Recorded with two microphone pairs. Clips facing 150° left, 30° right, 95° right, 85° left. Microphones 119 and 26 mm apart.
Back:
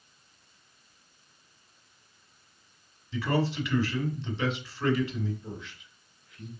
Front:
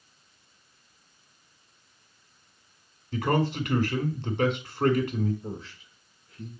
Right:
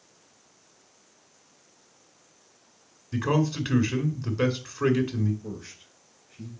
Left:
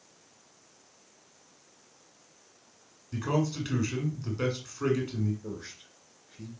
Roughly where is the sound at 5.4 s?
Ahead.